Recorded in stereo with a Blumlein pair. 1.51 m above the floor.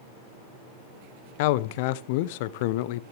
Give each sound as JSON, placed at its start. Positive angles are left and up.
{"t": 1.4, "sound": "a man speaking", "azimuth_deg": 50, "distance_m": 0.6}